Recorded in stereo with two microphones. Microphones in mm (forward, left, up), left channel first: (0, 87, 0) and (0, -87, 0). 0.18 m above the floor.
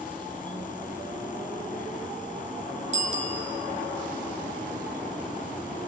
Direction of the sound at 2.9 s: 40° right (ahead or behind).